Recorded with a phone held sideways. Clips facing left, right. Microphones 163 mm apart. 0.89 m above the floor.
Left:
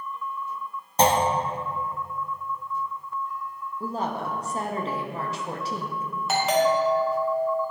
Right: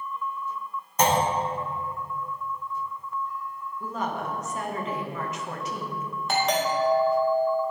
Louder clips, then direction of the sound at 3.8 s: Left 2 dB; 30° left (ahead or behind).